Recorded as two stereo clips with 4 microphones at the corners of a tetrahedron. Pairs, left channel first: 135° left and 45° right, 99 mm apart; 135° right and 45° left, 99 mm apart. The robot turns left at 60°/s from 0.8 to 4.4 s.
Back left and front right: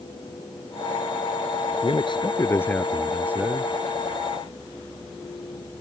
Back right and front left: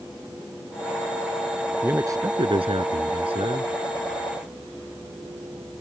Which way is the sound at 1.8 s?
115° left.